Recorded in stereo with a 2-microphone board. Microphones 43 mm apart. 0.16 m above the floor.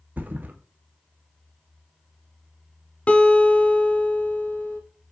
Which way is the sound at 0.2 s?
45° right (ahead or behind).